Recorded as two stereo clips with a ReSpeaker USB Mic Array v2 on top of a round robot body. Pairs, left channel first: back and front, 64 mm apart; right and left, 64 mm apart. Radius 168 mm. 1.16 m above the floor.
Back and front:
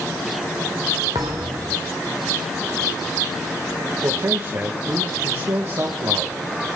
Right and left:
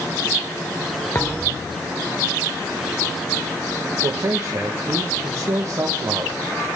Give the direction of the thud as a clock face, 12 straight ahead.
1 o'clock.